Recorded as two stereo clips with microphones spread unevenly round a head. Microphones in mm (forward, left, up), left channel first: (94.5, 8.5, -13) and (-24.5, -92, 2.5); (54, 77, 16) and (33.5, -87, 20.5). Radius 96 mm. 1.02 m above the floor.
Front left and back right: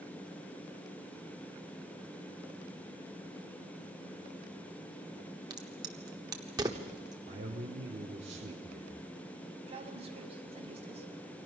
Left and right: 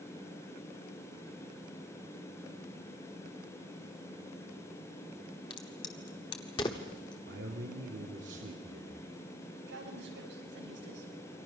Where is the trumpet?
No trumpet in this recording.